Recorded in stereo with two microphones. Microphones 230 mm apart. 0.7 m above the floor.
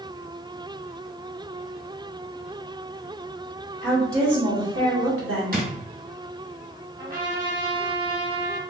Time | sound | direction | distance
3.8 | a woman speaking | 60° right (ahead or behind) | 1.7 m
5.5 | a drawer | 40° right (ahead or behind) | 0.9 m
7.0 | a trumpet | 35° right (ahead or behind) | 1.6 m